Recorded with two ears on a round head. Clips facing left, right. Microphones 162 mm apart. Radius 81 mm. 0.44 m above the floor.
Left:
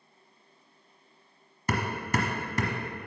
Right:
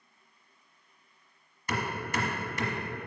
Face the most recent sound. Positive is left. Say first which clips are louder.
# left 3 dB
turn(degrees=40)  # may be behind; listen again after turning